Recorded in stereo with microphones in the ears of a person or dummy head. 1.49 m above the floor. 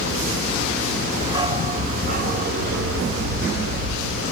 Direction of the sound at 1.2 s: 25° right (ahead or behind).